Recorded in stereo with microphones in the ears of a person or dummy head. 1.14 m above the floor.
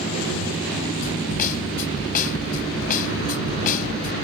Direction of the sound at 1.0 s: 40° left (ahead or behind).